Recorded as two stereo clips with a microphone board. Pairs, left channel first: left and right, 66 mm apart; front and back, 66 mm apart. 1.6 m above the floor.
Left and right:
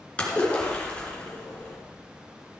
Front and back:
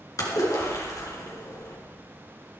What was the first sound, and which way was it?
A splash, 20° left.